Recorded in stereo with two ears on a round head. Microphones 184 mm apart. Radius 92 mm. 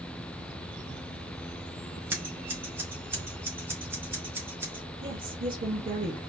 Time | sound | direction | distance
2.1 | scissors | 10° right (ahead or behind) | 1.8 m
5.0 | a woman speaking | 35° right (ahead or behind) | 2 m